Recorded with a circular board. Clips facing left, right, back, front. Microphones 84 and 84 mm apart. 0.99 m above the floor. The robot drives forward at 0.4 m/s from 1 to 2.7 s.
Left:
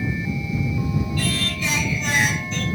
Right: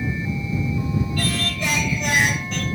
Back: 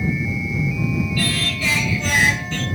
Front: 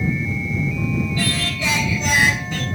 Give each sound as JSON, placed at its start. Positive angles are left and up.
{"t": 1.2, "sound": "singing", "azimuth_deg": -65, "distance_m": 2.5}